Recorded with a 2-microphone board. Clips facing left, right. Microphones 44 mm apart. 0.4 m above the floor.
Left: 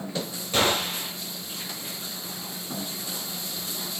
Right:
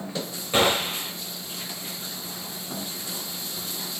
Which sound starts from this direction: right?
A gunshot, at 0.5 s.